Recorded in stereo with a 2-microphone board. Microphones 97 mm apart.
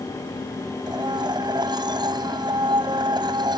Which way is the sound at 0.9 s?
50° right (ahead or behind).